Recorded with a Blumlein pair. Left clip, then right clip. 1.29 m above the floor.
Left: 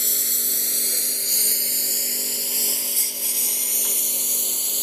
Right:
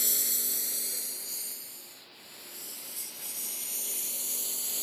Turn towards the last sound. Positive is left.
turn(degrees=65)